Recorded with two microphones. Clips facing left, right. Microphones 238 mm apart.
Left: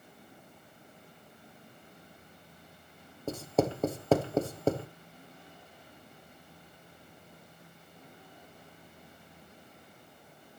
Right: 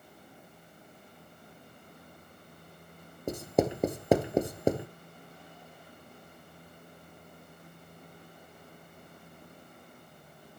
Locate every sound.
3.3 s writing: 15° right (ahead or behind), 1.0 m